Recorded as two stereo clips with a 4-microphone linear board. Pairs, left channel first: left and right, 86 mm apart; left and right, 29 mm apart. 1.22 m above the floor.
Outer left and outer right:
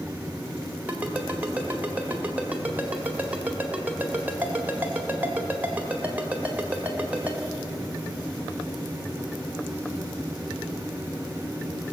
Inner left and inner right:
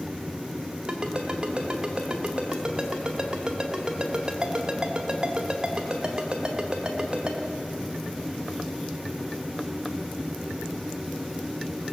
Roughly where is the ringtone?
Centre.